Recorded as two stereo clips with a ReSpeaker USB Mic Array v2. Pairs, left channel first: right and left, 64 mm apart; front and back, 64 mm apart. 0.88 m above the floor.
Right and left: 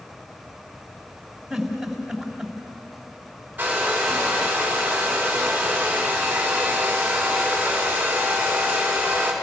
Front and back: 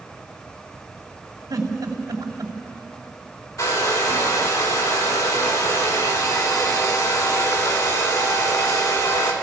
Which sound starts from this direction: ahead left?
A hair dryer, at 3.6 s.